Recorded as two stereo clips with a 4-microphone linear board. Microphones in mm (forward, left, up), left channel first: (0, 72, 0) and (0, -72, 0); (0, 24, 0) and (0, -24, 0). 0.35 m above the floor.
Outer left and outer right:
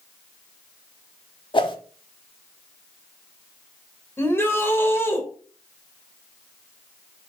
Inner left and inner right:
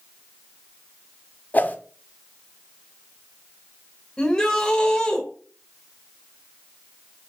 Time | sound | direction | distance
1.5 | a whoosh | 35° left (ahead or behind) | 0.9 m
4.2 | a shout | 15° left (ahead or behind) | 1.4 m